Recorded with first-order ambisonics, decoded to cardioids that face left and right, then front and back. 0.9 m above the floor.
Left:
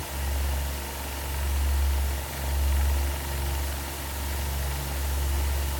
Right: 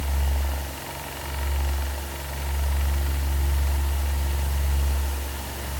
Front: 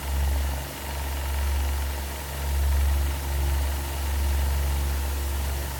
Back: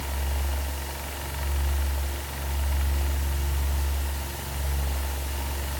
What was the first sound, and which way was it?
Only background noise.